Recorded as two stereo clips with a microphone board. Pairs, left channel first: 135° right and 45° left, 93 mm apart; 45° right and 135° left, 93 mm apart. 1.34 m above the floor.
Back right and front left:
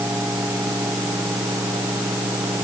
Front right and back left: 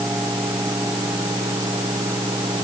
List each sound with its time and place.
Only background noise.